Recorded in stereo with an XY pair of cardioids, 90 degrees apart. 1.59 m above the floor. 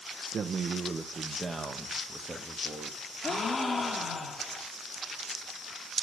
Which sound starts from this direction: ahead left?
A gasp, at 3.2 s.